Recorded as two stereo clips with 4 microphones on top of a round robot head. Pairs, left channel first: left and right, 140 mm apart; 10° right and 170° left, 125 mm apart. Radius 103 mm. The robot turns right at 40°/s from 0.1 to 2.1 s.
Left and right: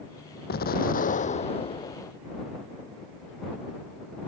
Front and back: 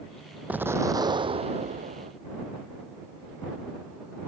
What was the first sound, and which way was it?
An explosion, 95° left.